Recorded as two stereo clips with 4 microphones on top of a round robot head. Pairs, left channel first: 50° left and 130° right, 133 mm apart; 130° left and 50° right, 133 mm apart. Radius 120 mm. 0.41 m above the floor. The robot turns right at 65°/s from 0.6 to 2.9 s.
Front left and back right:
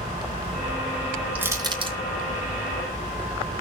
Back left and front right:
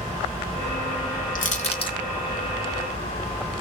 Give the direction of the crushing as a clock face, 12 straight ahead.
7 o'clock.